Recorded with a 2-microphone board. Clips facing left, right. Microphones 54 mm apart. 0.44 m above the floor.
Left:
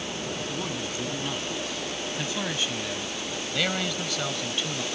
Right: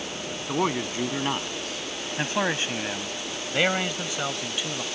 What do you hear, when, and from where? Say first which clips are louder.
0.5 s a man speaking: right 6 dB; 55° right (ahead or behind); by 4.8 s 10° right (ahead or behind)